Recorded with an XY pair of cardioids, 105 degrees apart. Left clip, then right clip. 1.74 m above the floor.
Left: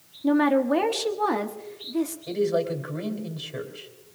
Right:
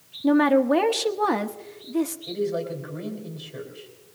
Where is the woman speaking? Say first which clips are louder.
Right 2 dB; 20° right, 1.0 m.